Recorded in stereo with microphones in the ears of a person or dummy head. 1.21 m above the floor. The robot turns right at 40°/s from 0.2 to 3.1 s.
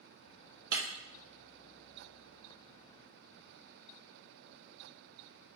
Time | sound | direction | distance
0.7 | breaking glass | 50° right (ahead or behind) | 1.2 m